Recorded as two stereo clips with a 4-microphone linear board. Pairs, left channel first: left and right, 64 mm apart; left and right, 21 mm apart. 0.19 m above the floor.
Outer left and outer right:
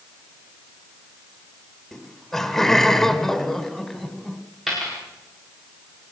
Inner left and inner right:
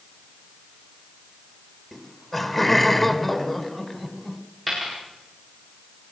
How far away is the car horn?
I don't hear a car horn.